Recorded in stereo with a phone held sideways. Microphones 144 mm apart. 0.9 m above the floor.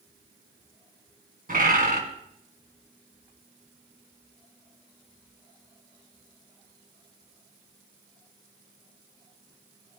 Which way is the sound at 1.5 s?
70° right (ahead or behind).